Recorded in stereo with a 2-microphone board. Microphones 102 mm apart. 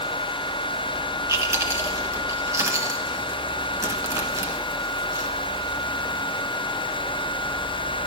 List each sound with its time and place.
1.3 s chewing: 30° right (ahead or behind), 1.2 m